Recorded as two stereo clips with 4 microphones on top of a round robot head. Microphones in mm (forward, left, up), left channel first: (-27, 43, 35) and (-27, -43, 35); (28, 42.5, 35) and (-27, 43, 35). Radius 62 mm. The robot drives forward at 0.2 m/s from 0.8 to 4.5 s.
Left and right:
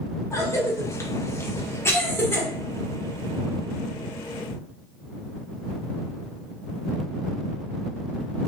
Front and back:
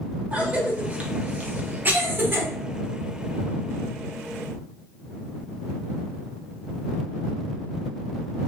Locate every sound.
0.3 s a cough: 130° left, 0.9 m; by 2.5 s 145° left, 1.0 m